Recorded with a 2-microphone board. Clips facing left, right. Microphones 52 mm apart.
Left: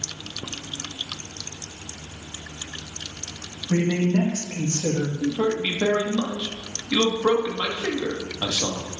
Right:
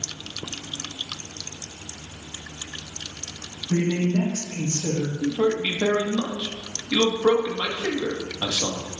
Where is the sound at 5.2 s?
5° left (ahead or behind), 1.4 m.